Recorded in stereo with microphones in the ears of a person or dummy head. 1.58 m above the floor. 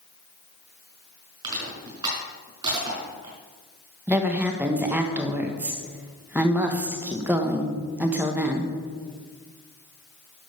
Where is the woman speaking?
10° right (ahead or behind), 1.3 m.